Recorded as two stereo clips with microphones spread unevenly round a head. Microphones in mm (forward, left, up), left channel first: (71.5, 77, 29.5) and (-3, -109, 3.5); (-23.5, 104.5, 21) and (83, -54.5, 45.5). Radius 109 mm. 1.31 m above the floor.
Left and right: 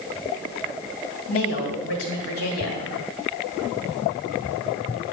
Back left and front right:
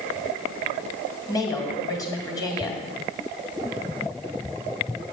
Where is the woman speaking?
50° left, 3 m.